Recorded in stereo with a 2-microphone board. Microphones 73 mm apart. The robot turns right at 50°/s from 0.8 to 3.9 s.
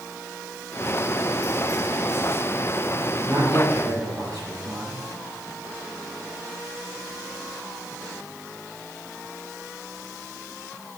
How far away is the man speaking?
About 5 m.